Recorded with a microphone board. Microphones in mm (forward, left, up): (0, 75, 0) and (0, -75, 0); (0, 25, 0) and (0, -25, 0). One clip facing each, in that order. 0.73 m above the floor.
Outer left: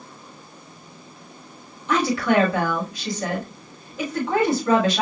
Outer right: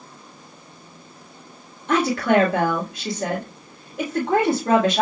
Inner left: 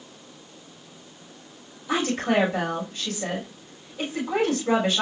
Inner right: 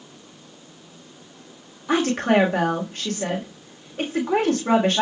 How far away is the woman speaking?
About 1.5 m.